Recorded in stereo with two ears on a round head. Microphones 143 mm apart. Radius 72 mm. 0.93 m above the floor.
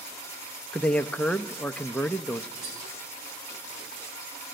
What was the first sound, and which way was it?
A man speaking, 5° left (ahead or behind).